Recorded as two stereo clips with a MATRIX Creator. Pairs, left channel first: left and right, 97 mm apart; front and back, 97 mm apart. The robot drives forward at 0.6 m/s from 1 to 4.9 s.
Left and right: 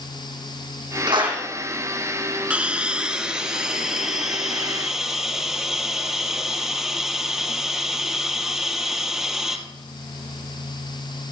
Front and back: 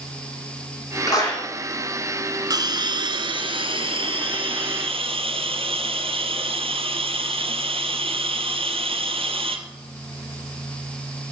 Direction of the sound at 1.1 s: 50° right.